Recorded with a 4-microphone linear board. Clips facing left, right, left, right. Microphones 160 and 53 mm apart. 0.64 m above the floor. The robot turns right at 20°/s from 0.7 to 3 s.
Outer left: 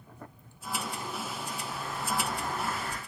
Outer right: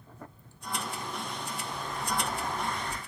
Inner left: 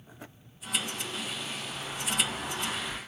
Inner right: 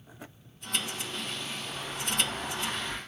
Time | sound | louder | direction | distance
1.7 | an explosion | even, inner right 1 dB | 60° right (ahead or behind) | 1.4 m